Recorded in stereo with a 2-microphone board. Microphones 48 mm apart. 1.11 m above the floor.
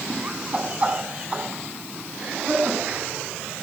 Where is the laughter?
25° right (ahead or behind), 9.5 m; by 3.0 s 35° right (ahead or behind), 10 m.